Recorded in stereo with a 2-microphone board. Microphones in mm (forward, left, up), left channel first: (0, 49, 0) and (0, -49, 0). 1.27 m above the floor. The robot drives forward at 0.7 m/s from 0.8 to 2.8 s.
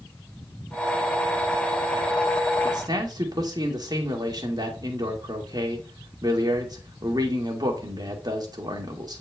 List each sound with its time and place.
2.6 s a man speaking: 45° right (ahead or behind), 1.8 m; by 9.2 s 40° right (ahead or behind), 1.9 m